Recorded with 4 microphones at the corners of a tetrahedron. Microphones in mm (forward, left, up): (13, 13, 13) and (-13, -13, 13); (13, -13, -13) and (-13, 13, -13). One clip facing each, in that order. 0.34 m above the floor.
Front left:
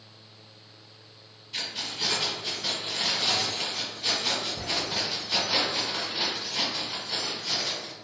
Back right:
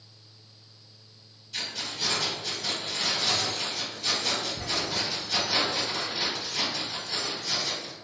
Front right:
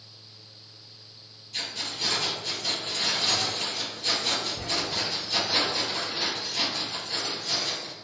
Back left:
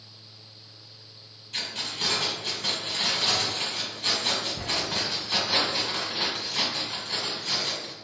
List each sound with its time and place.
1.5 s keys jangling: 115° left, 1.3 m